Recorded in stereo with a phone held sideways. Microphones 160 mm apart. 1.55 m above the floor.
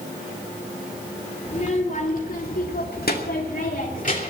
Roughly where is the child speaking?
Left.